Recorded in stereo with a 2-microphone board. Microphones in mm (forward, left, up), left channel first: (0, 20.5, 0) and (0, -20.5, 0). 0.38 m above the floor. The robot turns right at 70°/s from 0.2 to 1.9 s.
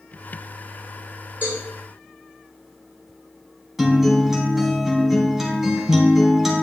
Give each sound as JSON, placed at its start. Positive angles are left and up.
{"t": 1.4, "sound": "a cowbell", "side_deg": -60, "distance_m": 3.5}
{"t": 3.8, "sound": "a guitar", "side_deg": -5, "distance_m": 1.7}